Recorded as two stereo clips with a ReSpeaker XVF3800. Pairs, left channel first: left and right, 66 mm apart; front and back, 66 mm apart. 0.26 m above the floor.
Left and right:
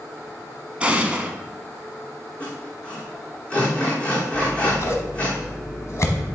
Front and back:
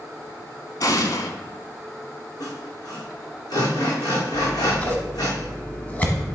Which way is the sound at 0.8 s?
20° right.